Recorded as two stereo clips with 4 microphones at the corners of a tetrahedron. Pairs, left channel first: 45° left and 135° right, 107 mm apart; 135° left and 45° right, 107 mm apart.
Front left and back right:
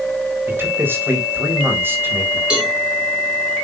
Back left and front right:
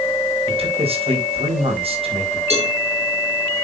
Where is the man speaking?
65° right, 4.5 m.